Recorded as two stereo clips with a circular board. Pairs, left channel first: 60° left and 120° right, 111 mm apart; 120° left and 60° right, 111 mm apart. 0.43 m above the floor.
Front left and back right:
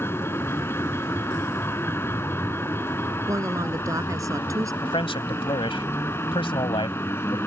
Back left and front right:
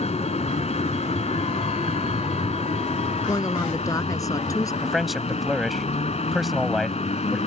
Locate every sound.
0.0 s a vehicle: 130° left
3.3 s a woman speaking: straight behind
4.8 s a man speaking: 30° left